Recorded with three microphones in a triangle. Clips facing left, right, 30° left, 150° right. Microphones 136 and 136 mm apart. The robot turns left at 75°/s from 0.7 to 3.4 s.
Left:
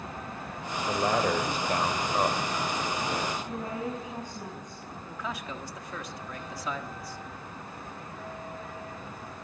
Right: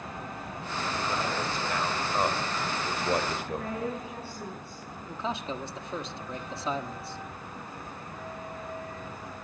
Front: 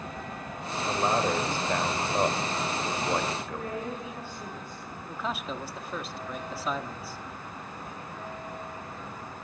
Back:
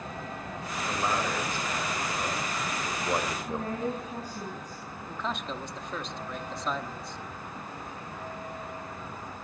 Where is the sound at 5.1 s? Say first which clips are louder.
Right 4 dB, front 1 dB; 50° right, 1.2 m.